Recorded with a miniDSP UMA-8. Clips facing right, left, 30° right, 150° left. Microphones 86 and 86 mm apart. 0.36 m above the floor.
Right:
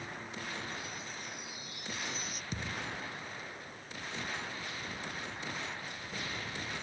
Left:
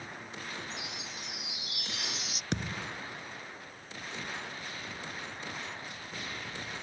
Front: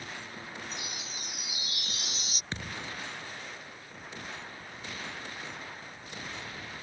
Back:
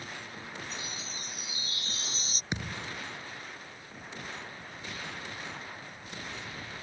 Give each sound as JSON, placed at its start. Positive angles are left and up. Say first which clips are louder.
{"t": 0.7, "sound": "a chime", "louder": "even, even", "azimuth_deg": 90}
{"t": 2.5, "sound": "a thud", "louder": "left 5 dB, back 2 dB", "azimuth_deg": 75}